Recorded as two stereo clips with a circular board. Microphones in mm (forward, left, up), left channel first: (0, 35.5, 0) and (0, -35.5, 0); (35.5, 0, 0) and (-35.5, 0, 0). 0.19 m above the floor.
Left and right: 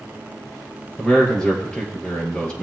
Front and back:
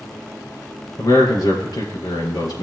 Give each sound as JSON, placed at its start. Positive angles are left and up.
{"t": 1.0, "sound": "a man speaking", "azimuth_deg": 15, "distance_m": 4.5}